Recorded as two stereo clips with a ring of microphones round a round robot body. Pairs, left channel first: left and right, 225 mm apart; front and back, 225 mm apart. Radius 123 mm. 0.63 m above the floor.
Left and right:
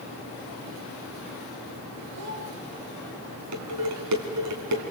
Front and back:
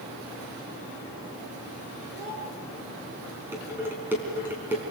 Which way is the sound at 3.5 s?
100° right.